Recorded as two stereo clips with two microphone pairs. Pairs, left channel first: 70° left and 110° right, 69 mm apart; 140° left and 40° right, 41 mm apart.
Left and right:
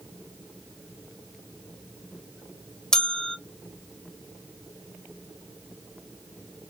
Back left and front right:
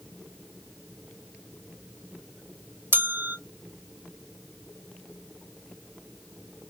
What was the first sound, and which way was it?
A bell, 10° right.